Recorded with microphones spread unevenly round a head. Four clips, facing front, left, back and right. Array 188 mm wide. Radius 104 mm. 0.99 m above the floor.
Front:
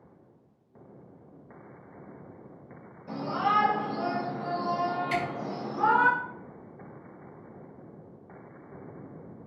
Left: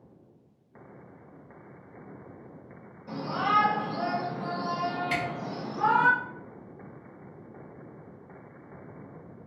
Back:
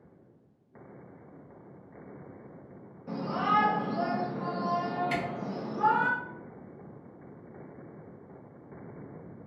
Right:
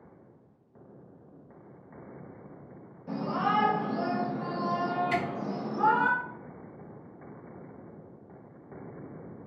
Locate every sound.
3.1 s a shout: 160° right, 1.4 m; by 6.1 s 20° right, 1.0 m
5.1 s a camera shutter: 145° left, 1.2 m